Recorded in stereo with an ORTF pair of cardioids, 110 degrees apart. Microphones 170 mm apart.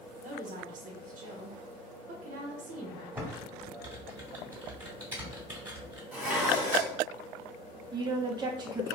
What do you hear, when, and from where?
0.2 s a woman speaking: 50° right, 1.0 m
3.1 s typing on a keyboard: 10° right, 1.5 m
6.1 s dishes clattering: 5° right, 1.6 m
7.9 s a woman speaking: 25° right, 0.7 m